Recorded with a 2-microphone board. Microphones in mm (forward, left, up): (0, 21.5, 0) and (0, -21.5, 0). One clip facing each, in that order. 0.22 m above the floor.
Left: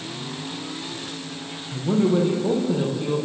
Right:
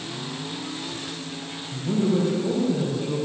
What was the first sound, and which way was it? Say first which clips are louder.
A man speaking: left 3 dB; 45° left (ahead or behind).